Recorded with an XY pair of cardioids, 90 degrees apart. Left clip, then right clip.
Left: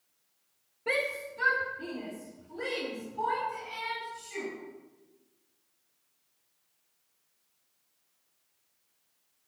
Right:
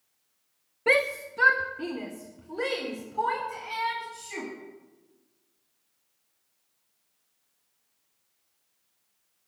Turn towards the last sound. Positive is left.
turn(degrees=-70)